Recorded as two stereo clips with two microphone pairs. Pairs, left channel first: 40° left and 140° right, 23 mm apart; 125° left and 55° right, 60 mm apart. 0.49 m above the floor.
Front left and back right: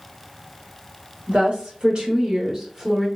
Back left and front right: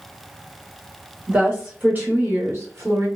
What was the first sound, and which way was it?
A woman speaking, 120° right.